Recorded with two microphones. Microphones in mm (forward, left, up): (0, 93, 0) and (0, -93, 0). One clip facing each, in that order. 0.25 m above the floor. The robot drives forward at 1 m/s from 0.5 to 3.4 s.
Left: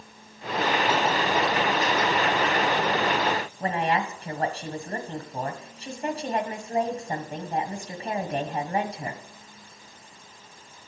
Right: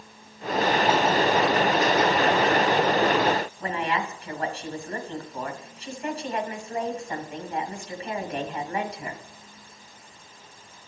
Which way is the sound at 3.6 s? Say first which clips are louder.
Left 2 dB; 35° left (ahead or behind).